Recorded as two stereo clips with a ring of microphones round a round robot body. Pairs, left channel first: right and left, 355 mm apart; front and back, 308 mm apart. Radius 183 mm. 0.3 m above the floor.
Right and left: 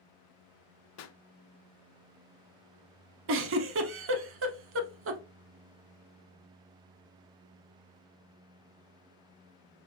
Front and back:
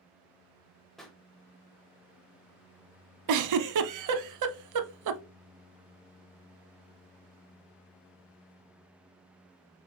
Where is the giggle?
145° left, 0.6 m.